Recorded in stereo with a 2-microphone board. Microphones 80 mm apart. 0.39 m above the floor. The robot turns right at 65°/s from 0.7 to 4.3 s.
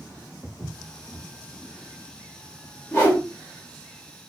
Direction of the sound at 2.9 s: 30° left (ahead or behind).